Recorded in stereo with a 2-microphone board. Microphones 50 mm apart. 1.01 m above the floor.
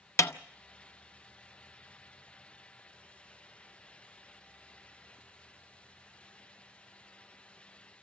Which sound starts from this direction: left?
A snare drum, at 0.2 s.